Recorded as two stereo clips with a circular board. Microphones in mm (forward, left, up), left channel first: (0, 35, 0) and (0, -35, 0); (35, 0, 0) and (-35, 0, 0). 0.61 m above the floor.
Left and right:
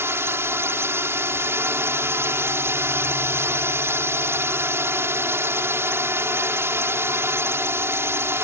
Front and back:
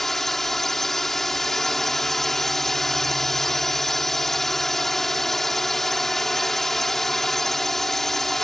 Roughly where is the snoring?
I don't hear snoring.